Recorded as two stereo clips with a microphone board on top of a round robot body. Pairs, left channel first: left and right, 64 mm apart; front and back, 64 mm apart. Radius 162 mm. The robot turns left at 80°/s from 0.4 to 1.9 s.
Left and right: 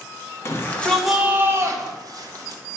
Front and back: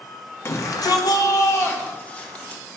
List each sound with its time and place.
0.5 s a shout: 45° left, 1.5 m; by 2.6 s 70° right, 1.5 m